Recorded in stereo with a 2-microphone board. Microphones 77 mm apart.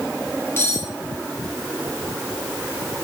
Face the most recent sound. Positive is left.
turn(degrees=35)  # may be behind; listen again after turning